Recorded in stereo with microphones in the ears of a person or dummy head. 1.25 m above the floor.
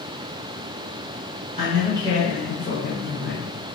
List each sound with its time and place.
1.6 s a man speaking: 40° right (ahead or behind), 1.3 m; by 3.5 s 50° left (ahead or behind), 1.3 m